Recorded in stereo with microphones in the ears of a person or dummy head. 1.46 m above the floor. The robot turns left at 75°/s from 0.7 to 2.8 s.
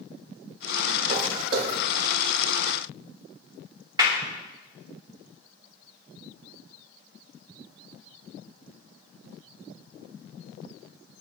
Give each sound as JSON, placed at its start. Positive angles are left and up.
{"t": 1.1, "sound": "footsteps", "side_deg": -45, "distance_m": 6.5}
{"t": 4.0, "sound": "a clap", "side_deg": -25, "distance_m": 3.5}